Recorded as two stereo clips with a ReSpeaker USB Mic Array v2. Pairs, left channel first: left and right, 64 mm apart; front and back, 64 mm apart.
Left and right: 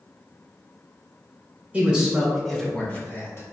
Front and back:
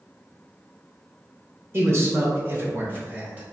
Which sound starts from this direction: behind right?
A man speaking, at 1.7 s.